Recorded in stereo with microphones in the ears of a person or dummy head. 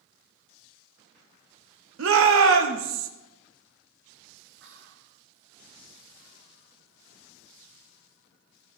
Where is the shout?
65° right (ahead or behind), 1.1 m.